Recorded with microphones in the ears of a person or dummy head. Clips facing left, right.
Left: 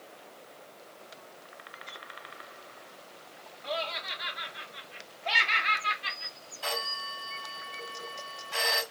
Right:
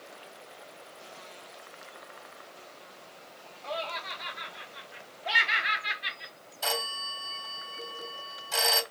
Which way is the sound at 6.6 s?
65° right (ahead or behind).